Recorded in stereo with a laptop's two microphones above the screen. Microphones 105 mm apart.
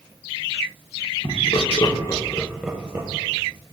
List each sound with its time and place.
1.2 s laughter: 60° left (ahead or behind), 1.1 m; by 3.1 s 30° right (ahead or behind), 0.8 m